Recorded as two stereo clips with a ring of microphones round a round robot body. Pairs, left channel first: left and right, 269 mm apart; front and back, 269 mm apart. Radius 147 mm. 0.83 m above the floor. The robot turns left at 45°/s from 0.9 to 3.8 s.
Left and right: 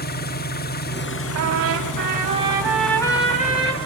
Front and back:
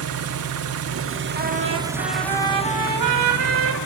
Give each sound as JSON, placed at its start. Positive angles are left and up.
{"t": 0.0, "sound": "an engine running", "azimuth_deg": 145, "distance_m": 1.2}
{"t": 1.4, "sound": "a trumpet", "azimuth_deg": -115, "distance_m": 4.0}